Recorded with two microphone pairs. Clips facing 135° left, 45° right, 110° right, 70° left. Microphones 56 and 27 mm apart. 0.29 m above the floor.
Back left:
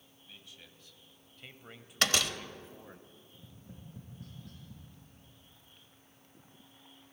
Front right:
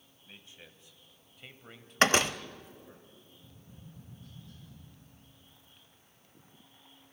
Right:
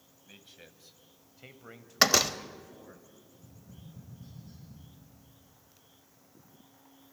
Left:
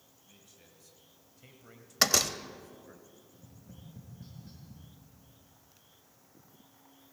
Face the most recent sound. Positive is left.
turn(degrees=120)